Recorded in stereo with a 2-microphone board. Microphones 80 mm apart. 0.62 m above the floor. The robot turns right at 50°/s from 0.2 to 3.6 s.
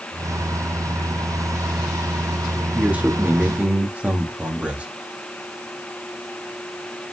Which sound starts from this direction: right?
A man speaking, at 2.7 s.